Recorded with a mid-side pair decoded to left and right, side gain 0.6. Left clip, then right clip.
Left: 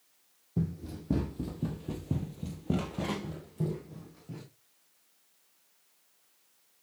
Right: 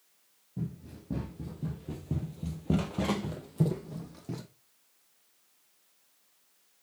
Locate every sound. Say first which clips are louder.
0.6 s running footsteps: left 5 dB; 55° left, 3.5 m; by 4.4 s 55° right, 3.5 m